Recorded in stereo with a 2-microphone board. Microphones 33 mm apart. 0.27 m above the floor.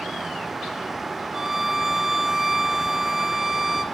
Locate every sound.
1.3 s a violin: 10° right (ahead or behind), 0.9 m